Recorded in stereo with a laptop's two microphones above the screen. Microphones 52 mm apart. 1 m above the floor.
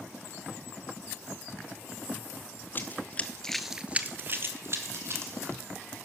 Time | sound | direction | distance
2.8 | running footsteps | 35° left (ahead or behind) | 1.6 m